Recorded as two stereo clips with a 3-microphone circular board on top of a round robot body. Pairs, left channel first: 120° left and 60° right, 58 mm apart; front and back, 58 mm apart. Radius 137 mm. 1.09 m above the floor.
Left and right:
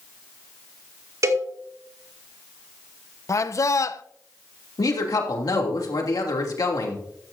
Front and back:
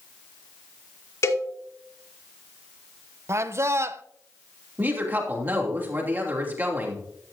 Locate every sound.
1.2 s a cowbell: 30° right, 2.5 m
3.3 s a man speaking: 145° left, 0.8 m
4.8 s a woman speaking: 125° left, 3 m